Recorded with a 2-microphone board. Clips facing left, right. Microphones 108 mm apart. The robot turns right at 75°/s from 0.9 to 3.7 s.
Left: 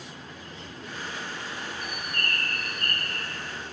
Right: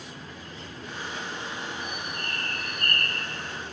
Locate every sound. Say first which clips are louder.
1.8 s a bird: even; 75° left, 3 m; by 3.2 s straight behind, 3 m